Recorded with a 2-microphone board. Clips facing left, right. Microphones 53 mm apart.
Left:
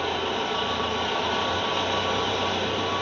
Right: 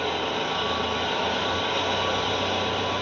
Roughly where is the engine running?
Centre.